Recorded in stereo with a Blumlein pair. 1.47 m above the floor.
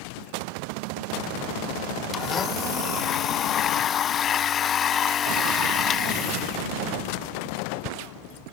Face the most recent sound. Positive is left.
turn(degrees=25)